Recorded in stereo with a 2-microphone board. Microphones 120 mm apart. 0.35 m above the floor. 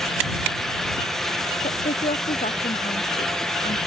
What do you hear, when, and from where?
1.6 s a woman speaking: 85° left